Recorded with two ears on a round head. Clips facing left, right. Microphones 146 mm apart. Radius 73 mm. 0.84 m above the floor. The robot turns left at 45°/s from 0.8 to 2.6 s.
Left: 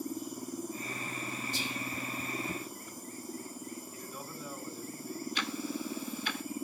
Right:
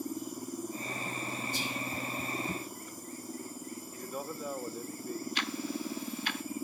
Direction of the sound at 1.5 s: 65° left (ahead or behind).